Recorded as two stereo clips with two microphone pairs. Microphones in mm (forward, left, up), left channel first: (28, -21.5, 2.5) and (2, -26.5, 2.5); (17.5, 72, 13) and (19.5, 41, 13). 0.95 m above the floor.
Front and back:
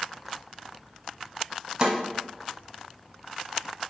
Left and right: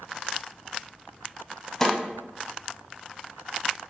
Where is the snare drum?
155° left, 0.9 m.